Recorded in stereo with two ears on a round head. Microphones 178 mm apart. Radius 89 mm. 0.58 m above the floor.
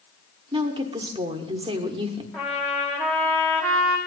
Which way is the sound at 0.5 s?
25° right (ahead or behind).